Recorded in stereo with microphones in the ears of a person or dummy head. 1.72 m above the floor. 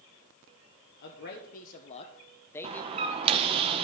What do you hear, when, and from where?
1.0 s a man speaking: 60° left (ahead or behind), 1.2 m; by 3.4 s 10° right (ahead or behind), 1.2 m
2.6 s a door slam: 25° right (ahead or behind), 0.9 m